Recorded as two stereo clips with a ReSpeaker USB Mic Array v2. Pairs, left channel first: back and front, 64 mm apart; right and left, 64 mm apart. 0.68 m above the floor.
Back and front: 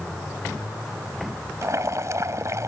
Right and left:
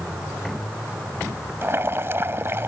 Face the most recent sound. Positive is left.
turn(degrees=40)